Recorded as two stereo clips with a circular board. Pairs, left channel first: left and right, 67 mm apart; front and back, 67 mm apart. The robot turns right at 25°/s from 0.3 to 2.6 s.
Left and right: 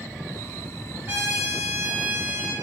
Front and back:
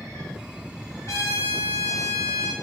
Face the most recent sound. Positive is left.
turn(degrees=0)